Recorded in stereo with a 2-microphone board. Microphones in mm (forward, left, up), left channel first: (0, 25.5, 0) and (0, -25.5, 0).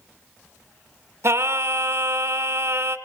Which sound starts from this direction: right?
Singing, at 1.2 s.